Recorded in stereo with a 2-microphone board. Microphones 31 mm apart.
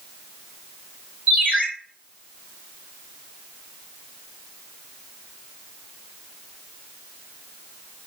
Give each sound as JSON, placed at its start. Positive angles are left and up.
{"t": 1.3, "sound": "a ringtone", "side_deg": -55, "distance_m": 1.3}